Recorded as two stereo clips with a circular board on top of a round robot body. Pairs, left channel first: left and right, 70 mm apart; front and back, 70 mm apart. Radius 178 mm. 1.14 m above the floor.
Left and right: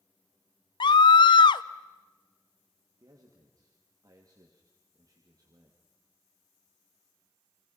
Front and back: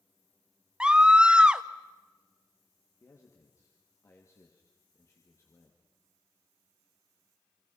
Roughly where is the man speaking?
Ahead right.